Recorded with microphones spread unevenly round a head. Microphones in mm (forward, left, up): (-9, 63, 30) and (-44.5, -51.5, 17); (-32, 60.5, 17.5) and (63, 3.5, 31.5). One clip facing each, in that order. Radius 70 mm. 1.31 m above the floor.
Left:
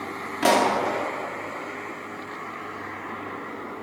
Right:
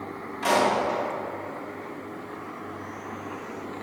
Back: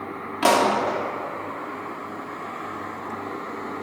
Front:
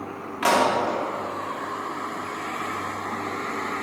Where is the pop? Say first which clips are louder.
Left 2 dB, back 2 dB; 90° left, 2 m.